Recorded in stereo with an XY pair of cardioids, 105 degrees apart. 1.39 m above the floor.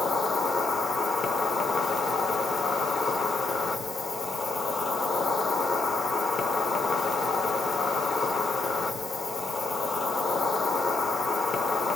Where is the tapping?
I don't hear tapping.